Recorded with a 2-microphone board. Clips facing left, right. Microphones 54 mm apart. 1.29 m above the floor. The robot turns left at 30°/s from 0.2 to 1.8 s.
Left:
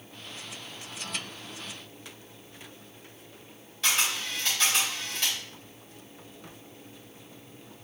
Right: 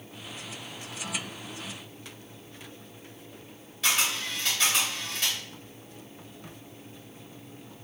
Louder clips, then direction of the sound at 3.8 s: Right 1 dB; 5° right (ahead or behind).